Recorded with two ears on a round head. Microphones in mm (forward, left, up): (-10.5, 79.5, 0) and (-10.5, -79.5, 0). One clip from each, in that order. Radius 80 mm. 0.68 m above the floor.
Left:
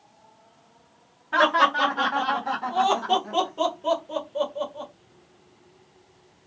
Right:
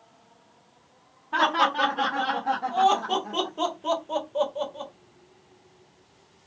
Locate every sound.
1.3 s laughter: 35° left (ahead or behind), 1.5 m; by 4.9 s 20° right (ahead or behind), 1.2 m